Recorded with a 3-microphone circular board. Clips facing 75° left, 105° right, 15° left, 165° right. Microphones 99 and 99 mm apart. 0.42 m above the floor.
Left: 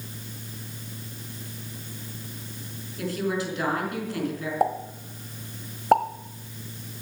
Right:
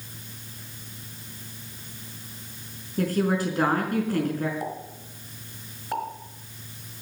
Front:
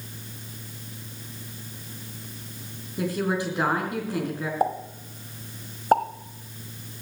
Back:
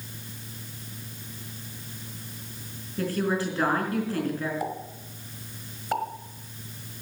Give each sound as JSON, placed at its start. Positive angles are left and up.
{"t": 3.0, "sound": "a woman speaking", "azimuth_deg": -60, "distance_m": 4.5}
{"t": 4.6, "sound": "a pop", "azimuth_deg": 60, "distance_m": 1.2}